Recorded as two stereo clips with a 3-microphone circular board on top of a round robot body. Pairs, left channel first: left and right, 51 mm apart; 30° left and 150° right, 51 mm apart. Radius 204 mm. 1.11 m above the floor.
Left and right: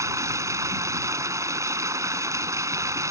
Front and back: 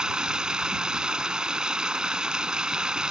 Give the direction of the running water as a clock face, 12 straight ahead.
2 o'clock.